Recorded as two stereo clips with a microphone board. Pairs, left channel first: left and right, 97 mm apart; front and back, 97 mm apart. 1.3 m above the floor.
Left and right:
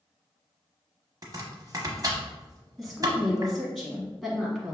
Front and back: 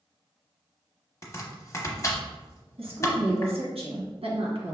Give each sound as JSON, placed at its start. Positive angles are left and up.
{"t": 1.2, "sound": "chopping", "azimuth_deg": -50, "distance_m": 0.8}
{"t": 2.8, "sound": "a woman speaking", "azimuth_deg": 180, "distance_m": 1.5}